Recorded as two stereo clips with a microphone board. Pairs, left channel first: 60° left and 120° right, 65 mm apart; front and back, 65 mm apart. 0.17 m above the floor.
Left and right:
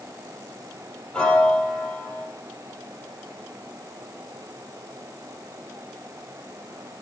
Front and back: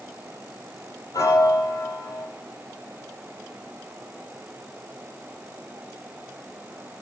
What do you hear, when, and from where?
1.1 s a piano: 15° right, 4 m